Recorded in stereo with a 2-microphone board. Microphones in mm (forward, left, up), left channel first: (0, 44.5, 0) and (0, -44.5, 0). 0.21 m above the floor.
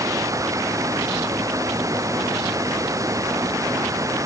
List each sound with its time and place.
0.0 s running water: 35° right (ahead or behind)